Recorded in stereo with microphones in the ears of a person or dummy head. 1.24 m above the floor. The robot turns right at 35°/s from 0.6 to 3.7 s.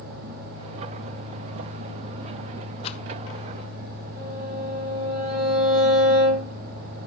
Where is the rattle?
30° left (ahead or behind), 0.7 m; by 3.0 s 35° left (ahead or behind), 0.7 m.